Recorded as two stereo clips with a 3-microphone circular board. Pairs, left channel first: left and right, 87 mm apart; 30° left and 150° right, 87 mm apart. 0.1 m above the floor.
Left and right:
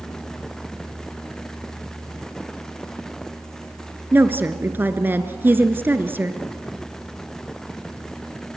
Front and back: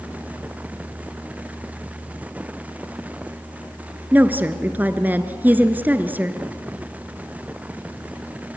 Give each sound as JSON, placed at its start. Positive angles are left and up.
{"t": 4.1, "sound": "a woman speaking", "azimuth_deg": -115, "distance_m": 1.2}